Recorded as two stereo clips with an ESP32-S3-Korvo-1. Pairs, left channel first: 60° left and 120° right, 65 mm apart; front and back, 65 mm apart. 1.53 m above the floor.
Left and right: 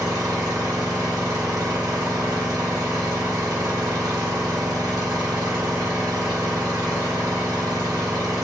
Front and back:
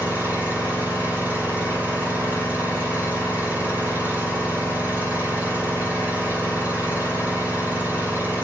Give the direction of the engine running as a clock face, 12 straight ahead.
4 o'clock.